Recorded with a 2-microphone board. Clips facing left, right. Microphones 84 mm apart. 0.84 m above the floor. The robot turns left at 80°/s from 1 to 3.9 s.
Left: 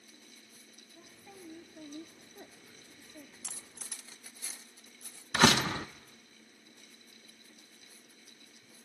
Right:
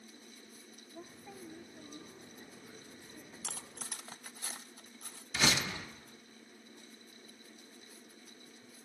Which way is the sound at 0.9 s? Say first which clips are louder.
Right 4 dB; 145° right.